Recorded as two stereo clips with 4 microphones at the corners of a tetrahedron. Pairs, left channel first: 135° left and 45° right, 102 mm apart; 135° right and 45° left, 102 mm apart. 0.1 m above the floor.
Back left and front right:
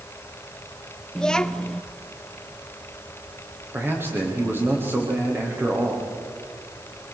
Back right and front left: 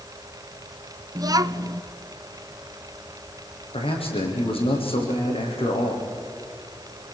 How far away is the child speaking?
About 0.9 m.